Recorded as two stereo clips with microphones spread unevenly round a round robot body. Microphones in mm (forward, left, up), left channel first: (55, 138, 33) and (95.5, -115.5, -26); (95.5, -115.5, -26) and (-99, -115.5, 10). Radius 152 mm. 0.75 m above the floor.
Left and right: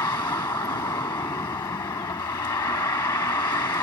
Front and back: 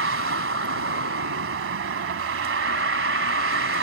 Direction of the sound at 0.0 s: 175° left.